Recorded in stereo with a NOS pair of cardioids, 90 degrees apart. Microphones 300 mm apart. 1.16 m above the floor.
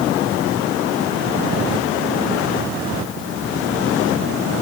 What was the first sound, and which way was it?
Only background noise.